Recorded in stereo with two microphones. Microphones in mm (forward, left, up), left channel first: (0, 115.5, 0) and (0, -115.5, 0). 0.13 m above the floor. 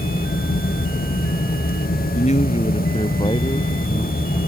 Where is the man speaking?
30° left (ahead or behind); by 4.4 s 15° left (ahead or behind).